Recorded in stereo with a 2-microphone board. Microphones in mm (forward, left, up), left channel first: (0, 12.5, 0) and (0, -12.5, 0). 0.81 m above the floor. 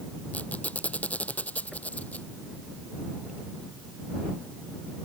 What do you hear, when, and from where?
0.3 s a squeak: 85° left